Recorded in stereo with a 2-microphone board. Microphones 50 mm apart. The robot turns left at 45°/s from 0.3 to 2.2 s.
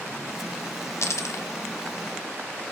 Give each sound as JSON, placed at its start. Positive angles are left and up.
{"t": 1.0, "sound": "a dropped coin", "side_deg": 70, "distance_m": 0.7}